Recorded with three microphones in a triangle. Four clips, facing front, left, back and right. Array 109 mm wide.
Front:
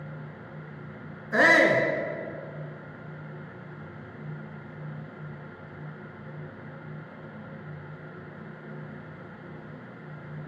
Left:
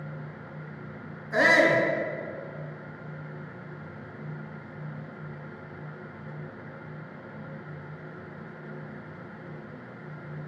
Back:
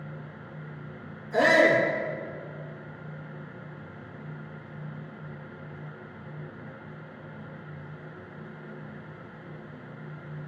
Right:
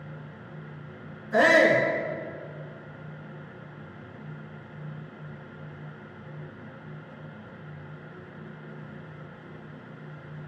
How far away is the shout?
About 3 m.